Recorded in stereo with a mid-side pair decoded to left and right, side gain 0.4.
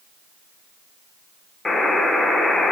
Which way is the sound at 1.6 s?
25° left.